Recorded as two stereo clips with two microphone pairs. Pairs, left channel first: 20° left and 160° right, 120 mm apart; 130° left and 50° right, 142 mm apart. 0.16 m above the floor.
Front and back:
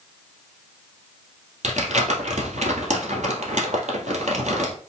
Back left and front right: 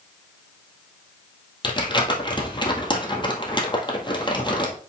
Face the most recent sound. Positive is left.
turn(degrees=-175)